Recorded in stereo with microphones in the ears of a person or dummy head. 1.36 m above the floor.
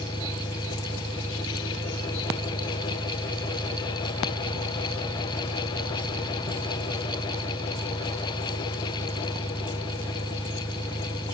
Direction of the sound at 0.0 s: 5° right (ahead or behind).